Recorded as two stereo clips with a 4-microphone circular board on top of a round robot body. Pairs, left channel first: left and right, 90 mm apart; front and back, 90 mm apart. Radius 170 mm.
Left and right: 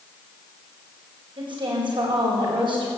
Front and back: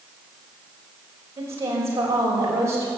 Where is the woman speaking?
120° right, 4.5 m.